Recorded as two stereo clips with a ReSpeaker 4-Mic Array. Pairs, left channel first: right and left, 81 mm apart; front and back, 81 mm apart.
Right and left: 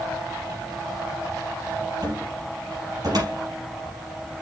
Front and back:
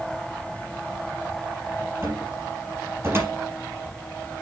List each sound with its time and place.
2.0 s a cupboard door: 120° left, 4.5 m